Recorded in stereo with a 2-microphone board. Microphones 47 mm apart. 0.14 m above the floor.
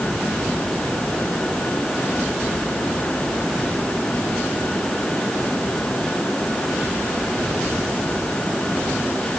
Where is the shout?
No shout in this recording.